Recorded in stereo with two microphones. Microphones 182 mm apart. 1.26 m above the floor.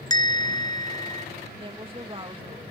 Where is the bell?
20° left (ahead or behind).